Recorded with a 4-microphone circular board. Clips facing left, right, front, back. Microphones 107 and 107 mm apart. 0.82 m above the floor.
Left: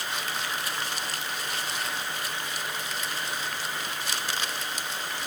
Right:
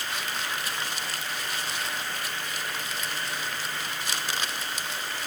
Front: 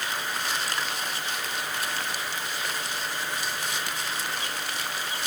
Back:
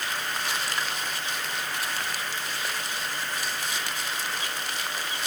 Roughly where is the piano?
I don't hear a piano.